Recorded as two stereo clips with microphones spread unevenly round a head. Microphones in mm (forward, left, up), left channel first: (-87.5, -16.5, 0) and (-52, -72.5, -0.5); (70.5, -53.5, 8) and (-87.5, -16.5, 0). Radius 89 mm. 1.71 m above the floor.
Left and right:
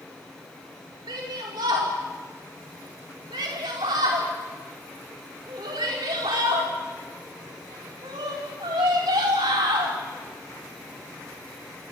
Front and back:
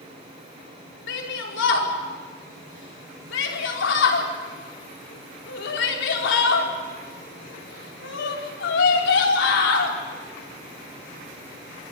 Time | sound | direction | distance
1.1 | a shout | 15° right | 5 m